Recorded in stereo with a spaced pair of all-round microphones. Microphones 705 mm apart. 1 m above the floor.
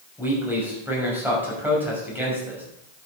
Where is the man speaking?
5° right (ahead or behind), 6 m.